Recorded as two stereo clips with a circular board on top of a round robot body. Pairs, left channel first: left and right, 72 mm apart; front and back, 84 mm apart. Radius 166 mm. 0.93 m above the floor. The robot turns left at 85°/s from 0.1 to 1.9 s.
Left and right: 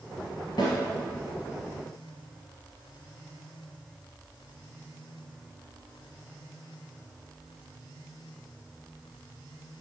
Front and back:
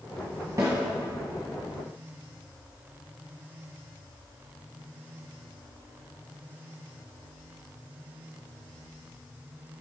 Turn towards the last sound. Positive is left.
turn(degrees=15)